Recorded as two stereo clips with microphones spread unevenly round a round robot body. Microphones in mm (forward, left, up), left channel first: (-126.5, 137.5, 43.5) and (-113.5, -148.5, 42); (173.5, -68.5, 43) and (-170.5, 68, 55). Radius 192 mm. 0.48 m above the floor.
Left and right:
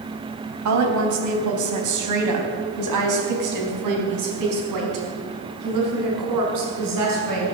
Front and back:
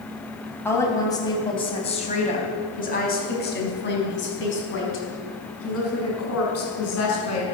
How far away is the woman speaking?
About 3.5 m.